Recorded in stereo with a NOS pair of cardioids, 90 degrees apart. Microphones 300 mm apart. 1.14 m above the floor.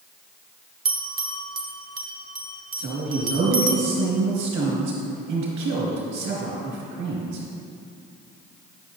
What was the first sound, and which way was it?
A bell, 30° right.